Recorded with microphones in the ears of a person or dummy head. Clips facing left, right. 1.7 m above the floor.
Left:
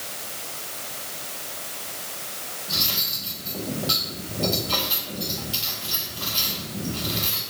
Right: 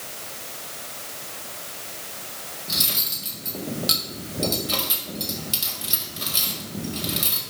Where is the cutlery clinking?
20° right (ahead or behind), 1.7 m.